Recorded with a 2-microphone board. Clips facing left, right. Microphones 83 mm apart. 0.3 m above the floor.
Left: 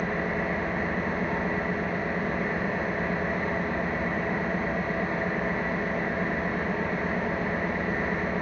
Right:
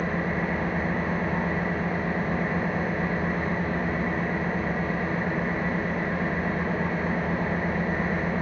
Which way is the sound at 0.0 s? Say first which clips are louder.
Right 1 dB; 20° right (ahead or behind).